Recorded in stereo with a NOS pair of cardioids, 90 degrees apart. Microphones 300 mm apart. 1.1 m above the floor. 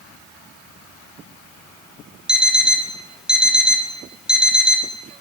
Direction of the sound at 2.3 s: 5° right.